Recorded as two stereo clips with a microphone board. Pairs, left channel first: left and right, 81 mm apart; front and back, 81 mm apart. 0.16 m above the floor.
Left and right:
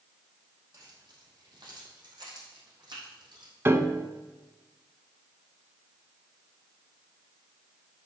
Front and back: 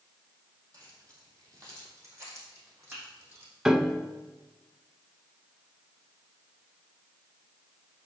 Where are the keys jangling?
135° right, 3.5 m; by 3.5 s 120° right, 5.5 m.